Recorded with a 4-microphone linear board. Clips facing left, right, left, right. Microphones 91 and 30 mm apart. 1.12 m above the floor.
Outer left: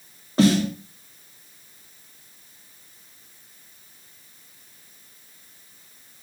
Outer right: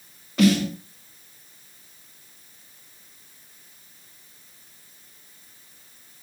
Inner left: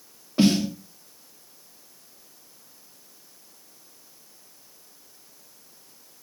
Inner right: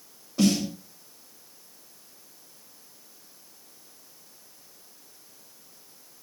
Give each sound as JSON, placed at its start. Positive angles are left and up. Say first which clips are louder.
{"t": 0.4, "sound": "a snare drum", "louder": "outer left 1 dB, inner left 3 dB", "side_deg": 30, "distance_m": 2.0}